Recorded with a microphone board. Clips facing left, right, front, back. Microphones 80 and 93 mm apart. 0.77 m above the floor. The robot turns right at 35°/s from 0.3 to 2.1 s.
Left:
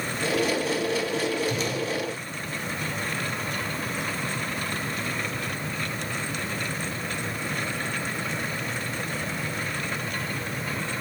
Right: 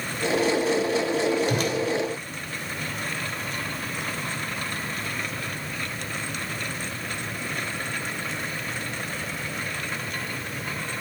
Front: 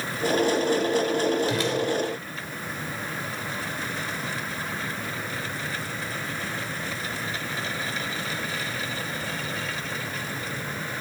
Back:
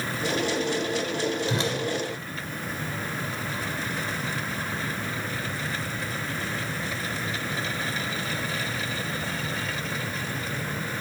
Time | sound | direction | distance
1.5 | a whoosh | 120° right | 1.5 m